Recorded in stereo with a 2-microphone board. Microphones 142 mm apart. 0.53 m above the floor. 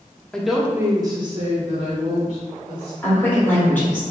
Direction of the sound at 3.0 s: 15° left (ahead or behind).